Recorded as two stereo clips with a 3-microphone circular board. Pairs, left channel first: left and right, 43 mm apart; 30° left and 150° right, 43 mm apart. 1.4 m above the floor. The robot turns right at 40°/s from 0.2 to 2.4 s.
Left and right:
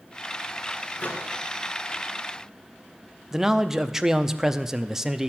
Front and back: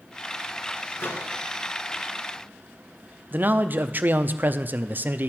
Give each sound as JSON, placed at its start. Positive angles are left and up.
{"t": 1.0, "sound": "a microwave", "azimuth_deg": 35, "distance_m": 1.6}
{"t": 3.3, "sound": "a man speaking", "azimuth_deg": -165, "distance_m": 0.6}